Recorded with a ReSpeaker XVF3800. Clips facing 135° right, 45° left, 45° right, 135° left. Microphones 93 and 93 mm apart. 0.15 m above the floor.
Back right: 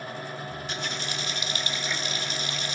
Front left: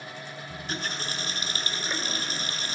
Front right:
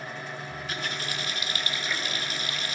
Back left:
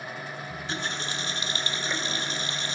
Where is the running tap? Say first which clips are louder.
Back right 1 dB, back left 2 dB; 85° left, 1.4 m.